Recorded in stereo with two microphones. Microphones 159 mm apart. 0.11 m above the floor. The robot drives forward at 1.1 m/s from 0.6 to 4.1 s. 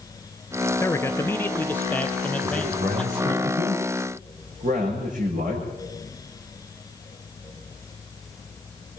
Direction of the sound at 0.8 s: 20° left (ahead or behind).